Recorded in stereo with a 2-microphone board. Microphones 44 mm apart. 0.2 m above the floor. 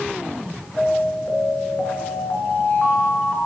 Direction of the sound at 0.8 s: 40° left (ahead or behind).